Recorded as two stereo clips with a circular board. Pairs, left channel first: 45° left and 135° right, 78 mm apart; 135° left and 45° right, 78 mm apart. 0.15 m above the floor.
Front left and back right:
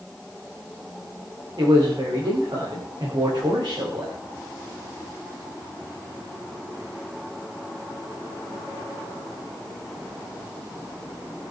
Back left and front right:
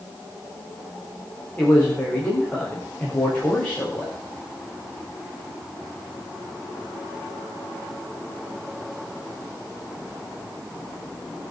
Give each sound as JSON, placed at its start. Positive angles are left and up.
{"t": 1.6, "sound": "a man speaking", "azimuth_deg": -155, "distance_m": 9.5}